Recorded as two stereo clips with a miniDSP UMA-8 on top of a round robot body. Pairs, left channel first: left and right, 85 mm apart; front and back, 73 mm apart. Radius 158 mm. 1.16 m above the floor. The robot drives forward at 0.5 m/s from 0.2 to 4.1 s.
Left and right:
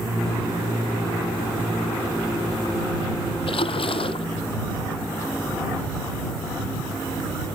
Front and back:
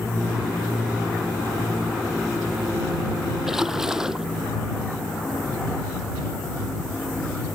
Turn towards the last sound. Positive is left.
turn(degrees=95)